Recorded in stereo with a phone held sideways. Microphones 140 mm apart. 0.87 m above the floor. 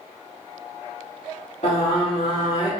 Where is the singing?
50° left (ahead or behind), 1.7 m.